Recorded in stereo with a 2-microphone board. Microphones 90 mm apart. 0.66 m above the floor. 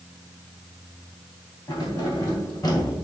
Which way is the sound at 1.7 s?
50° left (ahead or behind).